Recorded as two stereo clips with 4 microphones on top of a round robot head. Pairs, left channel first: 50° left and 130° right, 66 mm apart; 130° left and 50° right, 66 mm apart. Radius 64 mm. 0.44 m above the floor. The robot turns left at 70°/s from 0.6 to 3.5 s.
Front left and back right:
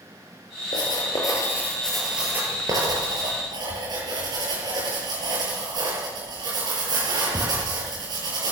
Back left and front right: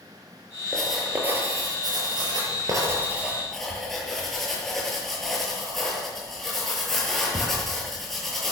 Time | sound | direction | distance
0.7 | writing | 50° left | 8 m